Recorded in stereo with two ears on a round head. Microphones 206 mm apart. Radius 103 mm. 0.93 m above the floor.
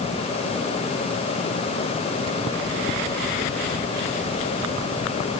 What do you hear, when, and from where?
Only background noise.